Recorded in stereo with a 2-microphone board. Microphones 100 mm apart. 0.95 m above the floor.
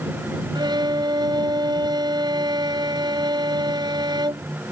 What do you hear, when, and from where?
0.6 s a violin: 50° right (ahead or behind)